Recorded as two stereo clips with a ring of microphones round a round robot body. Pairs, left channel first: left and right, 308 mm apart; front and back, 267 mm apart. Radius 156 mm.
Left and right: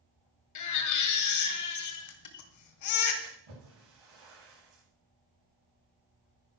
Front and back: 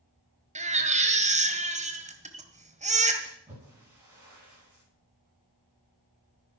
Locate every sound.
0.6 s a baby crying: 115° left, 1.7 m
3.2 s a splash: 100° right, 9.5 m